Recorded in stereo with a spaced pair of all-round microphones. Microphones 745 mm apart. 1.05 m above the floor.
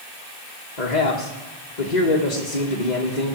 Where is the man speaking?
65° left (ahead or behind), 1.7 m.